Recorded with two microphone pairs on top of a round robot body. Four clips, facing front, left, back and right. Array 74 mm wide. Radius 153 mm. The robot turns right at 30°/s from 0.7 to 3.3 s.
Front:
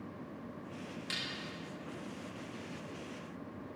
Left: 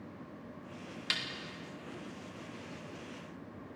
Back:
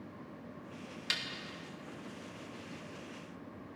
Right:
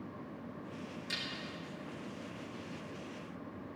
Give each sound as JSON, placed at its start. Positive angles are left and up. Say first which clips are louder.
{"t": 1.1, "sound": "a snare drum", "louder": "left 6 dB, back 4 dB", "azimuth_deg": 120, "distance_m": 2.5}